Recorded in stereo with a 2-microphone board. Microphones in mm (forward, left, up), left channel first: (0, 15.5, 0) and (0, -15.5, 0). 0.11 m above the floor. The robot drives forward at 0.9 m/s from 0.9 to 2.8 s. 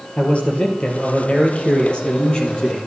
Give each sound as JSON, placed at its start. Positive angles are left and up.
{"t": 0.2, "sound": "a man speaking", "side_deg": 45, "distance_m": 2.5}